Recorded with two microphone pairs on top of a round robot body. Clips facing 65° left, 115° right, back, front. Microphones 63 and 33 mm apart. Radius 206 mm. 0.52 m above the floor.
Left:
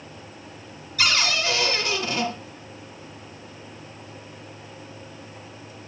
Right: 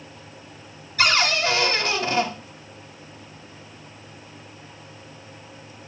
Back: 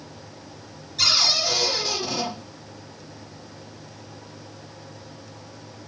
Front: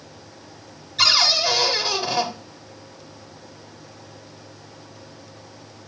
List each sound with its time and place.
1.0 s a cupboard door: 65° right, 1.3 m